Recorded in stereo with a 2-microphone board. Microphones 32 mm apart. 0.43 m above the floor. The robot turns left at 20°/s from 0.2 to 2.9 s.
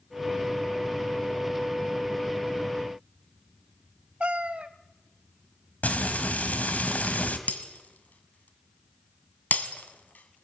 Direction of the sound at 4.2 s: 40° right (ahead or behind).